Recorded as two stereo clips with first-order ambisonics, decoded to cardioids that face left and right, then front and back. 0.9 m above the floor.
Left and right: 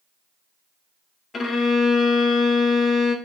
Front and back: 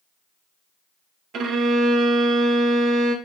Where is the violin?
155° left, 0.5 m.